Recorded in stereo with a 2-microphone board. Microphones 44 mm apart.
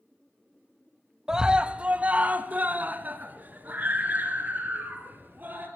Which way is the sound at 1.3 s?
15° right (ahead or behind).